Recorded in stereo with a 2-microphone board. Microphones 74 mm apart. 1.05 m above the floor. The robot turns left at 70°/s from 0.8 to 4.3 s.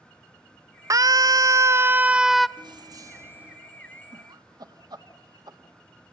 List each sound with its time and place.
0.9 s a scream: 75° right, 0.5 m; by 2.5 s 175° left, 0.5 m
2.6 s keys jangling: 100° right, 1.2 m; by 3.6 s 170° right, 1.2 m
4.1 s laughter: 65° right (ahead or behind), 2 m; by 5.6 s 75° right (ahead or behind), 2 m